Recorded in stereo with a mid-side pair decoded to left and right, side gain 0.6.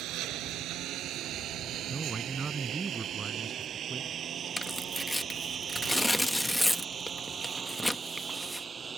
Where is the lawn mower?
65° right; by 9.0 s 25° right.